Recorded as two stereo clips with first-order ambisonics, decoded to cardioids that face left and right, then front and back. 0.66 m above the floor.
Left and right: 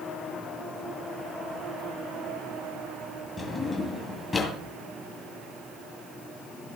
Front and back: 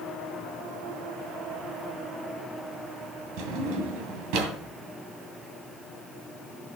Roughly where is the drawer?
Behind.